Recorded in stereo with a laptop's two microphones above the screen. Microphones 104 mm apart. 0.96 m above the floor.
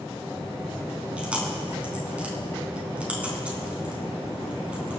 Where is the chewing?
15° right (ahead or behind), 5 m.